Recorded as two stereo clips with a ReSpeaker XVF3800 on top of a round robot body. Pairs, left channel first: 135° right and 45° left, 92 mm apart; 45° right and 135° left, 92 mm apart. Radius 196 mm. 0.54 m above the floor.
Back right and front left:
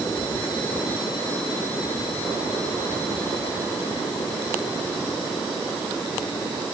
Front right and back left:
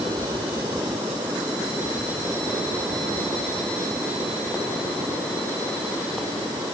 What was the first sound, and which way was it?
Only background noise.